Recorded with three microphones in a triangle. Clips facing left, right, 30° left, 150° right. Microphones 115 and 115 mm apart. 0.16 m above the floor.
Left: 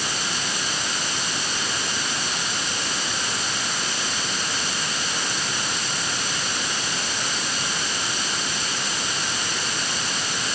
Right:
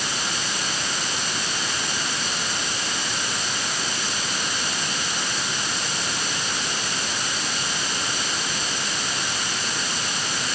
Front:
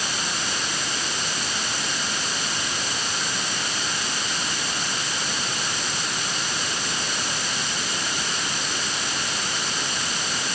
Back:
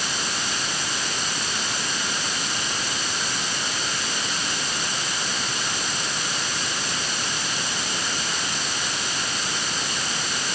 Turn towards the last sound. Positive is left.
No sound to turn to.